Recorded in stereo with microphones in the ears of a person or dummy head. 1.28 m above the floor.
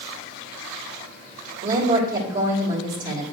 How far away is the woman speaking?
About 2 m.